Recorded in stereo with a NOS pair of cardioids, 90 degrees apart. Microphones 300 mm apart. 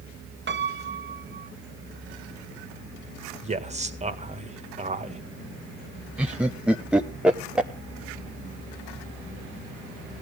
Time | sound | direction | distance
0.5 | a piano | 40° right | 1.2 m
3.4 | a man speaking | 25° right | 1.9 m
6.2 | laughter | 5° right | 0.9 m